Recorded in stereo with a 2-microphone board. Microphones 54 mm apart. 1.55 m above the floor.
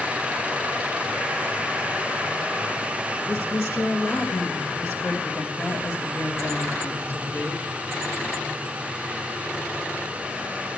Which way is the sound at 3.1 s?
60° left (ahead or behind).